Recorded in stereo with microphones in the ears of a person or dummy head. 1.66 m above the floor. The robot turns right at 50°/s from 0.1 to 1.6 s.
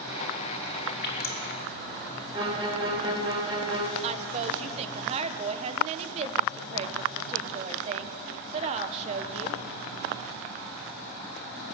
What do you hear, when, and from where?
1.0 s dripping: 60° left (ahead or behind), 1.6 m; by 1.4 s 40° left (ahead or behind), 1.6 m
2.3 s a violin: 25° right (ahead or behind), 1.9 m
4.0 s a woman speaking: 30° right (ahead or behind), 1.0 m